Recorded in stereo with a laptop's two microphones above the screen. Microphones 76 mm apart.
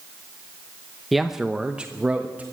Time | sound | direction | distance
1.1 | a man speaking | centre (ahead or behind) | 0.8 m